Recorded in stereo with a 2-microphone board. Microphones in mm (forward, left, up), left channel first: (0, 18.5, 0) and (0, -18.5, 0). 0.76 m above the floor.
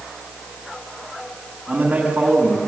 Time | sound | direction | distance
1.7 | a man speaking | 45° right (ahead or behind) | 6.5 m